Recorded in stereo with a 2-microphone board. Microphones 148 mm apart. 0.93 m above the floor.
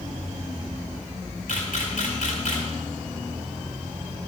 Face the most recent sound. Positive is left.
turn(degrees=65)  # may be behind; listen again after turning